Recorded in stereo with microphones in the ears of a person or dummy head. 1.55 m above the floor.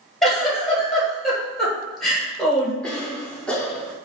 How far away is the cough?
About 0.6 m.